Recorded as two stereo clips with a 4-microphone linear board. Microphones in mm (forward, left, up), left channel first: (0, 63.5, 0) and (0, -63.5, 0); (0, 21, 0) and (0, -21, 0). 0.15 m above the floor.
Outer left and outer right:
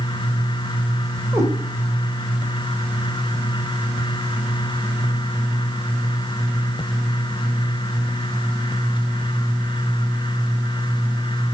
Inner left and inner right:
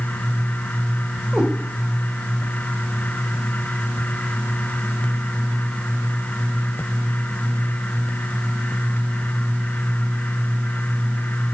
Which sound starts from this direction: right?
A cat meowing, at 1.3 s.